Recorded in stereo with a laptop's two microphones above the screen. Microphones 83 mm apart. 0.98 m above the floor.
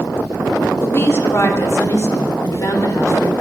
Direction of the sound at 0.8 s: 35° left (ahead or behind).